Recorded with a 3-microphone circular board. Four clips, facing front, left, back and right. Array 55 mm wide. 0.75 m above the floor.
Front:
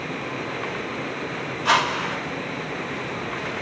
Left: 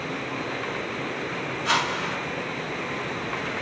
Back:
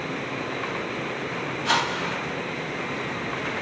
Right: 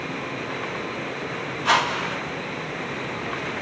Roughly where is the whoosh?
Ahead right.